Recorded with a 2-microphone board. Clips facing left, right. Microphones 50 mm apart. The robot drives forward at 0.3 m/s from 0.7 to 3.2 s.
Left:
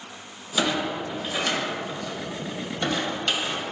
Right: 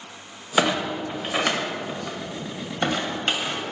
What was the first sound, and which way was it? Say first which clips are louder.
A clunk: right 3 dB; 40° right (ahead or behind).